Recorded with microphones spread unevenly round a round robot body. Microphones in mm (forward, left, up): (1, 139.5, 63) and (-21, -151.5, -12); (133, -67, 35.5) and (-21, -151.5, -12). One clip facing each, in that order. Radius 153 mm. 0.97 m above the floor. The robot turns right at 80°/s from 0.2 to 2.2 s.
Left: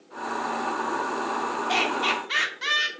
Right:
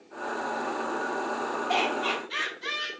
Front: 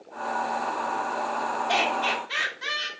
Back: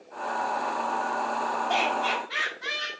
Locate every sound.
1.7 s laughter: 25° left, 2.5 m; by 2.9 s 65° left, 2.5 m